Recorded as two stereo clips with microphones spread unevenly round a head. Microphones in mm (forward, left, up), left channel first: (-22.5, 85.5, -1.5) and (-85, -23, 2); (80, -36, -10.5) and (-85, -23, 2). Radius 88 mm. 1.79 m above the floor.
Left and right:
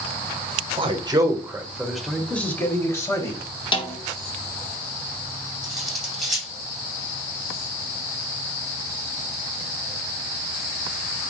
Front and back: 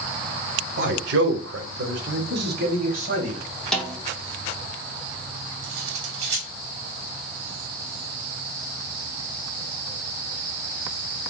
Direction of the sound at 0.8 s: 165° right.